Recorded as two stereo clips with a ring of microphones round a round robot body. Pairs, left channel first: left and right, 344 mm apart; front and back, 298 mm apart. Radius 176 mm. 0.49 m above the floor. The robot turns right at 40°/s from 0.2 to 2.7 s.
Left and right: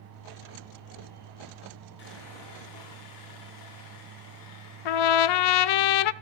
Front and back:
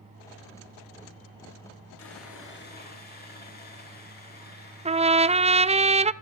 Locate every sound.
2.0 s sawing: 30° left, 9 m; by 5.8 s 60° left, 9 m
4.8 s a trumpet: 110° left, 0.6 m